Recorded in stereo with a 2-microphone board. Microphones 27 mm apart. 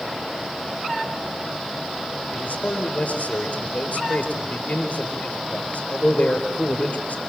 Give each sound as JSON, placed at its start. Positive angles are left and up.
{"t": 2.3, "sound": "a man speaking", "side_deg": 60, "distance_m": 5.0}